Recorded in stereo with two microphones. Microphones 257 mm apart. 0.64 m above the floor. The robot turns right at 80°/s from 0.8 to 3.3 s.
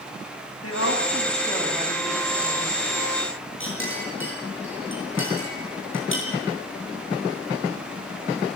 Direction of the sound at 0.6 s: 110° left.